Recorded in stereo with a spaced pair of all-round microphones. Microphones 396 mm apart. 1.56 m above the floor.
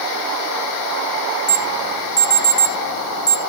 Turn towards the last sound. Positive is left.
turn(degrees=85)